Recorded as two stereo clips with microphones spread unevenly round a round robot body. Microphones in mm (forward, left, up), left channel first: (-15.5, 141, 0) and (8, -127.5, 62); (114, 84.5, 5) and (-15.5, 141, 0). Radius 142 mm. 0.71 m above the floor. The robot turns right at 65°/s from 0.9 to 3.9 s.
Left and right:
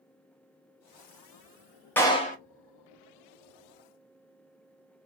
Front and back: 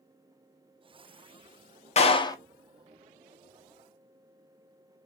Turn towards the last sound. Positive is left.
turn(degrees=145)